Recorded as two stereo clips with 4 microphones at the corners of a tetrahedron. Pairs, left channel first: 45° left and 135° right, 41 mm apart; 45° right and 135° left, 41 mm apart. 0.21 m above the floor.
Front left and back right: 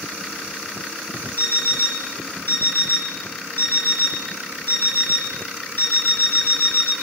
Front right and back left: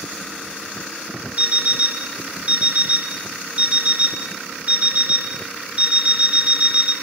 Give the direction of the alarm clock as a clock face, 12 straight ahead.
9 o'clock.